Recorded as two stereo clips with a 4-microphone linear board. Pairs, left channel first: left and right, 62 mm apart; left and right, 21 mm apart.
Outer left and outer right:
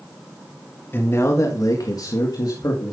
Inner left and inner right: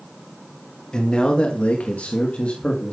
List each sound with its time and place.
0.9 s a man speaking: 35° left (ahead or behind), 2.5 m; by 2.9 s 75° left (ahead or behind), 3 m